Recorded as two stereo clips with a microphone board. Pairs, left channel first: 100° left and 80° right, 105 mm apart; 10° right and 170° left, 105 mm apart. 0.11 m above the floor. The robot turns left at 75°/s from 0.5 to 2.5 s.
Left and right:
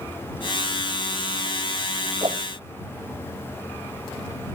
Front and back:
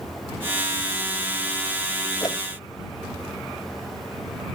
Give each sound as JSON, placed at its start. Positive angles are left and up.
{"t": 2.2, "sound": "a whoosh", "azimuth_deg": -55}